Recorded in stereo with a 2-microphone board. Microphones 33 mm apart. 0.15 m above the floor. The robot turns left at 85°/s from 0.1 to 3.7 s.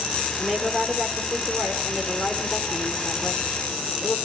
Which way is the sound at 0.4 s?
Straight ahead.